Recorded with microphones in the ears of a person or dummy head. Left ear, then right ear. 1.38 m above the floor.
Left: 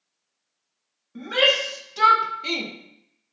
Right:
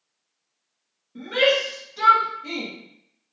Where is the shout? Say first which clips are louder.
Even; 50° left (ahead or behind), 1.5 m; by 2.7 s 55° left (ahead or behind), 0.8 m.